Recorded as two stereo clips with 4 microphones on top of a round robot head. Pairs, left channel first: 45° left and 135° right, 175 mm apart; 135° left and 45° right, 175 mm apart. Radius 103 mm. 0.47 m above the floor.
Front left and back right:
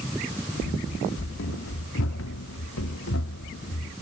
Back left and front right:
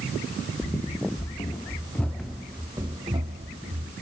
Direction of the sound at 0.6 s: 80° left.